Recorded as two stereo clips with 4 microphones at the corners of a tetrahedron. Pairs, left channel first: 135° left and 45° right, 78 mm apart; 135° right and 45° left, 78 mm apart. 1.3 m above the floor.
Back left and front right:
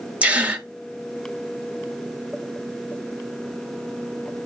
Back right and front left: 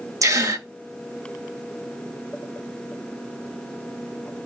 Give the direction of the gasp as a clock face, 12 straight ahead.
11 o'clock.